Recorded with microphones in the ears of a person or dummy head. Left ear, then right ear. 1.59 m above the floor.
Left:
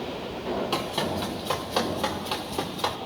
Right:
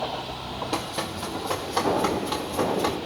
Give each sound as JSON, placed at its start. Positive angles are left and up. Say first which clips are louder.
{"t": 0.7, "sound": "running footsteps", "louder": "right 1 dB", "side_deg": 55, "distance_m": 3.0}